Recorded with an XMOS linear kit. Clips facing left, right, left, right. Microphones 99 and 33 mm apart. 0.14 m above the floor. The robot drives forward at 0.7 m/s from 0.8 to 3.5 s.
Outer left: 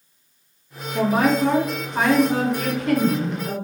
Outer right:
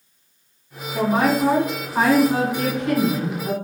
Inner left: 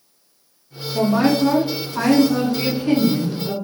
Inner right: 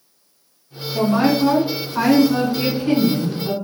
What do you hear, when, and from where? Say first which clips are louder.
0.9 s a woman speaking: even, even; 25° right (ahead or behind), 1.6 m; by 3.5 s 20° right (ahead or behind), 2 m